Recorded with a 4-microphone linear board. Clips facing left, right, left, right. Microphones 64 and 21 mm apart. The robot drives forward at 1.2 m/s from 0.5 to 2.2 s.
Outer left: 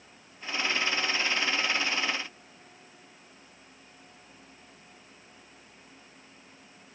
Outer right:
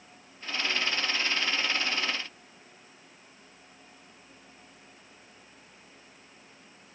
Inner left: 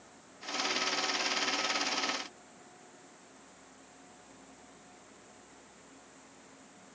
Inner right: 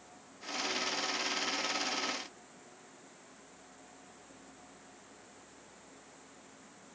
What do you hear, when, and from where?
Only background noise.